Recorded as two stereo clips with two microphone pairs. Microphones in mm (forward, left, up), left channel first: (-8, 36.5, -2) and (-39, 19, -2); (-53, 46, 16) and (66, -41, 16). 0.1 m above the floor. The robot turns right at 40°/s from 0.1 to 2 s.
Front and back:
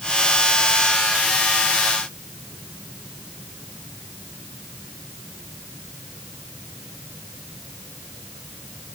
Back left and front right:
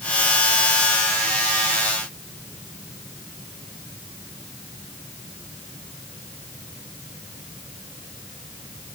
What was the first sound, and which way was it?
Only background noise.